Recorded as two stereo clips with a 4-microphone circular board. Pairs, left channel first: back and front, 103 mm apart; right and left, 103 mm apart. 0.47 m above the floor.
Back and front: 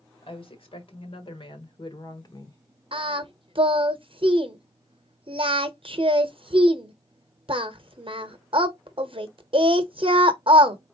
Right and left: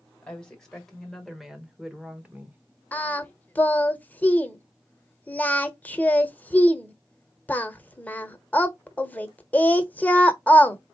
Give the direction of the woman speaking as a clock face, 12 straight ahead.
6 o'clock.